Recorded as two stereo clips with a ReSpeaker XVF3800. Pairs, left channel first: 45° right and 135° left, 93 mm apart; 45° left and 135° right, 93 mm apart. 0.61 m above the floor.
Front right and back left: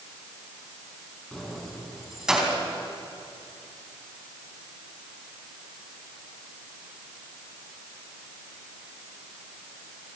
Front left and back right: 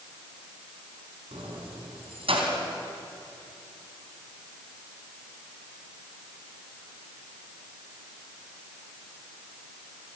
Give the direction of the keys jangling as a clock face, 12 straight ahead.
4 o'clock.